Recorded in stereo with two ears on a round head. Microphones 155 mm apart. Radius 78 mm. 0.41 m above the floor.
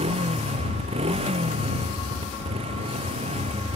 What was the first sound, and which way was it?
A motorcycle, 35° right (ahead or behind).